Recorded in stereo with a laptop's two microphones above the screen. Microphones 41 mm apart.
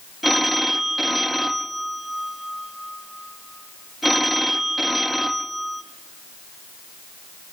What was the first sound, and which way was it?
A phone ringing, 5° right (ahead or behind).